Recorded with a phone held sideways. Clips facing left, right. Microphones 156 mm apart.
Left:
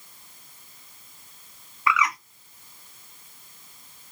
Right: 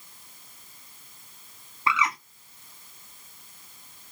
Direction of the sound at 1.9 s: 30° right (ahead or behind).